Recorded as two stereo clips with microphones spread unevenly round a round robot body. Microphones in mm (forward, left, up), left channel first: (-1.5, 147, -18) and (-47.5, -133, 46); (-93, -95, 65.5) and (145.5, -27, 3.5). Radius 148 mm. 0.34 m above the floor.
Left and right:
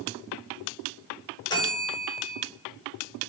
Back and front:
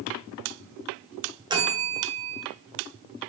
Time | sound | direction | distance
1.5 | a bell | 40° left | 1.5 m